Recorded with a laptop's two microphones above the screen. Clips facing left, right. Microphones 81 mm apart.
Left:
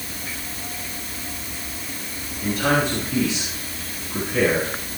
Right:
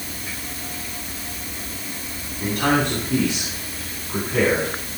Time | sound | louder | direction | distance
2.4 | a man speaking | right 1 dB | 60° right (ahead or behind) | 7.5 m